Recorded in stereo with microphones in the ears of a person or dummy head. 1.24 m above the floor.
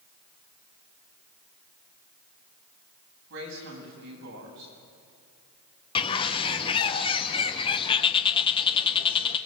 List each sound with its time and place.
3.3 s a woman speaking: 75° right (ahead or behind), 8 m
6.0 s a bird: 25° left (ahead or behind), 0.8 m